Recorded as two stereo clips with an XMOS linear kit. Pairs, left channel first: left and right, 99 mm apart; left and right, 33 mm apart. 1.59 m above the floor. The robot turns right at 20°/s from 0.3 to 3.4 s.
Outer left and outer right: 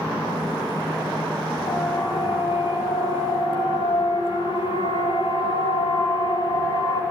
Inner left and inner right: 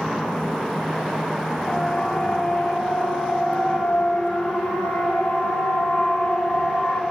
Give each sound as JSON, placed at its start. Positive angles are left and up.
{"t": 1.7, "sound": "a siren", "side_deg": 50, "distance_m": 9.0}